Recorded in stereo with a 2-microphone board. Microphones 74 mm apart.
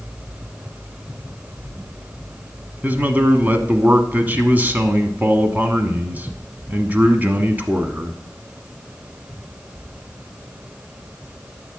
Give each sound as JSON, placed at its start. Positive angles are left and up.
{"t": 2.8, "sound": "a man speaking", "side_deg": -25, "distance_m": 1.1}